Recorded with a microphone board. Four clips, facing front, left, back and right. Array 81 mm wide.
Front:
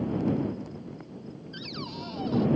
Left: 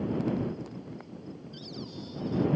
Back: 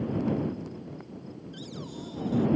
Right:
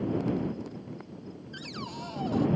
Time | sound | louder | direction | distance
1.5 | a cupboard door | right 4 dB, front 3 dB | 60° right | ?